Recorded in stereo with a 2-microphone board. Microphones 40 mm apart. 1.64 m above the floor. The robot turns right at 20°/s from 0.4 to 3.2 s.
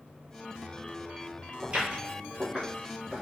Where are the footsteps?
25° right (ahead or behind), 1.9 m; by 3.2 s 5° right (ahead or behind), 1.7 m.